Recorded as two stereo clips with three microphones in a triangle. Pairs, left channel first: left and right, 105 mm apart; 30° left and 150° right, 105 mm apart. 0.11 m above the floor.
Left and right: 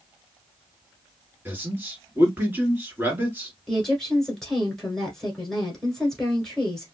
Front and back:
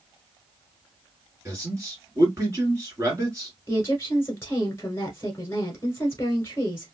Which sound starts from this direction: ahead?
A woman speaking, at 3.7 s.